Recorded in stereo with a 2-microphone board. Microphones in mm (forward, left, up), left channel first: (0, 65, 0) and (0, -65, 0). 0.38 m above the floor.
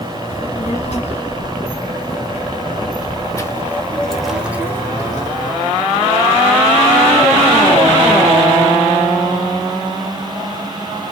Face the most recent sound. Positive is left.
turn(degrees=-40)  # may be behind; listen again after turning